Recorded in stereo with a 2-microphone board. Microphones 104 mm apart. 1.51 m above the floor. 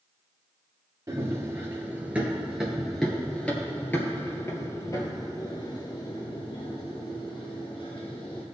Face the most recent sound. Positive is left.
turn(degrees=60)  # may be behind; listen again after turning